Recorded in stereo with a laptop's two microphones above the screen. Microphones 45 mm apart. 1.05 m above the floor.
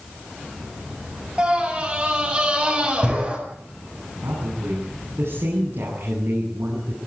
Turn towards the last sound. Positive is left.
turn(degrees=-70)  # may be behind; listen again after turning